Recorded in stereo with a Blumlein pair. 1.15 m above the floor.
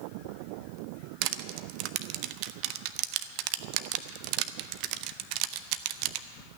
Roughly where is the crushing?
Ahead right.